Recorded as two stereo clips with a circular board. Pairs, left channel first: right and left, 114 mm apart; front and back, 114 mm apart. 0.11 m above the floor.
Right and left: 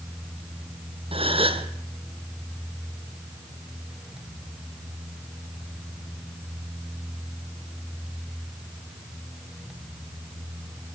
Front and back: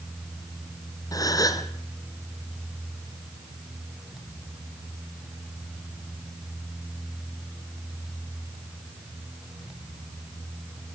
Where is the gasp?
55° left, 1.5 m.